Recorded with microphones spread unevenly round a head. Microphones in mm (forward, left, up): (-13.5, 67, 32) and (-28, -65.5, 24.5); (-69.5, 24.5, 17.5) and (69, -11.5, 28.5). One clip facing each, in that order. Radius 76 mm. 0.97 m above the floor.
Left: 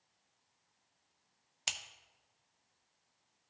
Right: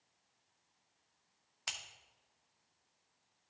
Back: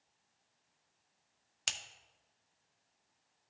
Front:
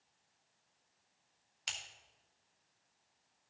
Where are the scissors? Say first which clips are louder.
Left 2 dB, back 2 dB; 140° left, 0.6 m.